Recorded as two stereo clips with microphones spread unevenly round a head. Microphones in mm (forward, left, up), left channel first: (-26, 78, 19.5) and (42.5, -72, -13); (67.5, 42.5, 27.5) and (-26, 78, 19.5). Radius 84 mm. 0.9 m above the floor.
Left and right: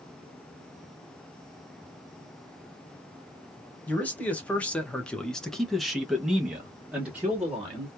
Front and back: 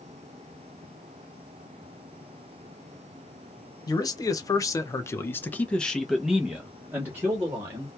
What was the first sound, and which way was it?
A man speaking, 25° left.